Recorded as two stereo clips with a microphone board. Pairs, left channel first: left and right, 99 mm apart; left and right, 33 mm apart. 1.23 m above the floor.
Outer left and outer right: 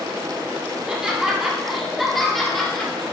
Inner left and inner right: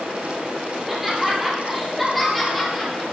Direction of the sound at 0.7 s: 10° right (ahead or behind).